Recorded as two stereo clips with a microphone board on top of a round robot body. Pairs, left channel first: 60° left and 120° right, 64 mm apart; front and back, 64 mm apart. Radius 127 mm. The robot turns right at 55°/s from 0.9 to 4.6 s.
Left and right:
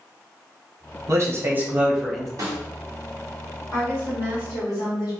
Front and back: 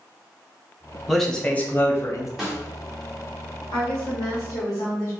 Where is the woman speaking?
10° right, 1.3 m; by 5.1 s 40° left, 1.3 m.